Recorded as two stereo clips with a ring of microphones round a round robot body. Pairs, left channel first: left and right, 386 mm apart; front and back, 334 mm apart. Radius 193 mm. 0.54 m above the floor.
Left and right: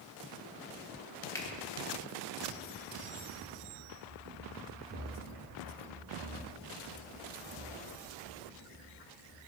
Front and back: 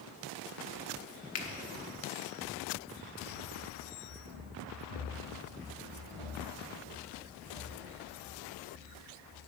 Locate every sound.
1.4 s a finger snap: 10° left, 1.2 m
3.4 s running footsteps: 55° right, 3 m; by 9.4 s 10° left, 7.5 m